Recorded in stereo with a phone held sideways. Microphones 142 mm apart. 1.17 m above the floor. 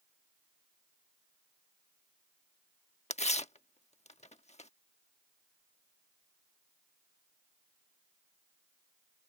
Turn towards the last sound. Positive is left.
turn(degrees=50)  # may be behind; listen again after turning